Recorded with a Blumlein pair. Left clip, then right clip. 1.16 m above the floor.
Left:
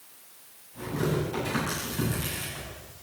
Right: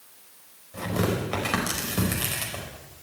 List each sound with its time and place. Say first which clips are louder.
0.7 s tearing paper: right 2 dB; 45° right, 5.5 m